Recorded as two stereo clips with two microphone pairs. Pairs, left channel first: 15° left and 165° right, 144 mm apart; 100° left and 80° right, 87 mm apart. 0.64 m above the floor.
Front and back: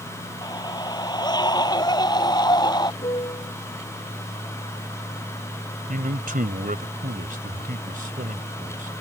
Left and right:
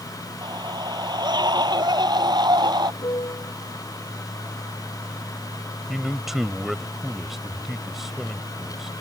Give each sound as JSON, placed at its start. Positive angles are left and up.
{"t": 0.4, "sound": "a scream", "azimuth_deg": -45}
{"t": 3.0, "sound": "a piano", "azimuth_deg": 70}
{"t": 5.9, "sound": "a man speaking", "azimuth_deg": -165}